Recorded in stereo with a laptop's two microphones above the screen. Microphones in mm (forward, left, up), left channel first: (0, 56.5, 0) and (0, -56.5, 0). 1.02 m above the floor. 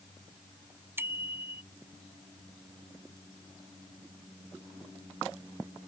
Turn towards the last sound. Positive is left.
turn(degrees=-20)  # may be behind; listen again after turning